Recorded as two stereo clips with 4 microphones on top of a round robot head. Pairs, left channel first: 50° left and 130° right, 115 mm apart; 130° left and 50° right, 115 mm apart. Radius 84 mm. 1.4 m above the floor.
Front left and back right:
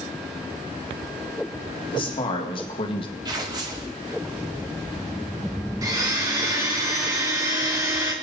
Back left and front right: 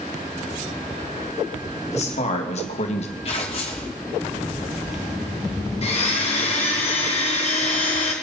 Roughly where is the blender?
Behind.